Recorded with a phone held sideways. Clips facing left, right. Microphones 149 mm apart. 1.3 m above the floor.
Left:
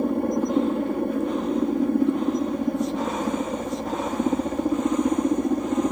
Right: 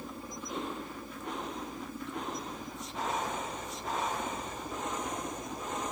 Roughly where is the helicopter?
Left.